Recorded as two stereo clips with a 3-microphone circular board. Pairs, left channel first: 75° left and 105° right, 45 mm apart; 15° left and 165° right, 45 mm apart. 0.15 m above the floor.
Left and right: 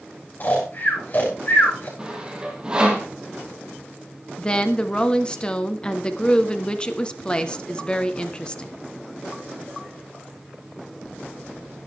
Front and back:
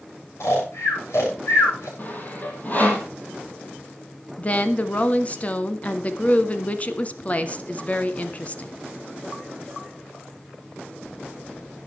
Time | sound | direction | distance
0.4 | snoring | 30° left | 8.5 m
2.0 | sawing | 35° right | 3 m
4.4 | a woman speaking | 25° left | 1.2 m